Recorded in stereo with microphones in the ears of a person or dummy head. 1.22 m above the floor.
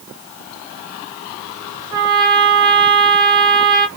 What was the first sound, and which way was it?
A trumpet, 15° right (ahead or behind).